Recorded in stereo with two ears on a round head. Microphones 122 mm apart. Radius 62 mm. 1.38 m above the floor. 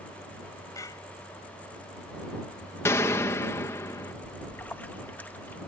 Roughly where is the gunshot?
Left.